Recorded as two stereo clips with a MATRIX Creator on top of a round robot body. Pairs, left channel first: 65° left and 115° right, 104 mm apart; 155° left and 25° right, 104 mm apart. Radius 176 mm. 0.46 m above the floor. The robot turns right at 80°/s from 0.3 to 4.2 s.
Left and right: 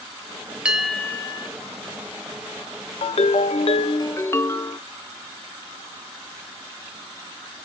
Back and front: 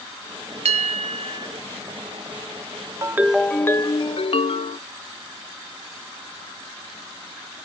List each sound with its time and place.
0.7 s a bell: 35° right, 0.6 m; by 1.5 s 35° left, 0.6 m
3.0 s a ringtone: 35° left, 0.7 m; by 4.8 s 130° left, 0.7 m